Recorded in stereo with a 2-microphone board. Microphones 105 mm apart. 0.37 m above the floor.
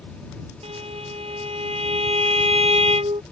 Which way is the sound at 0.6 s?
70° right (ahead or behind).